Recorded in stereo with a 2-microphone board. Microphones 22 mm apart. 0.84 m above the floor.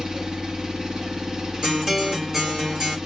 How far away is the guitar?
About 3 m.